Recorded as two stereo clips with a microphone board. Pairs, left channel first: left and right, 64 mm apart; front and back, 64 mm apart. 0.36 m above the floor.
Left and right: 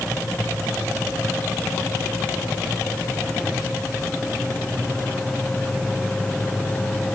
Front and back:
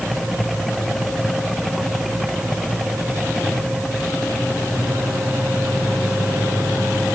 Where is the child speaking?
I don't hear a child speaking.